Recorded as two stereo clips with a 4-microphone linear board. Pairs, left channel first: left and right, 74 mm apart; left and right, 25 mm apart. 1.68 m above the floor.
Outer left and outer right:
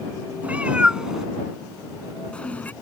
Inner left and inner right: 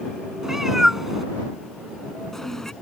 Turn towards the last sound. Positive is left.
turn(degrees=25)  # may be behind; listen again after turning